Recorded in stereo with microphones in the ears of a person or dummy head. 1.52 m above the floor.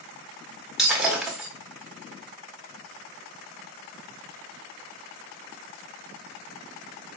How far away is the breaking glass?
About 1.2 m.